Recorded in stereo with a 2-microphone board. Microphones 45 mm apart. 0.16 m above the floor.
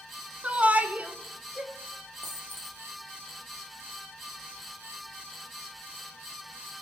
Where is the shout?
30° right (ahead or behind), 1.3 m.